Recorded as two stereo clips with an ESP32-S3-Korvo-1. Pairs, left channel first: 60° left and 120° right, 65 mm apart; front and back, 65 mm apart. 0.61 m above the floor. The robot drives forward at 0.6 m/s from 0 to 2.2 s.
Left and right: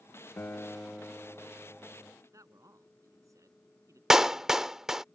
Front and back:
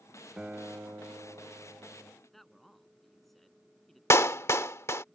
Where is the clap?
40° right.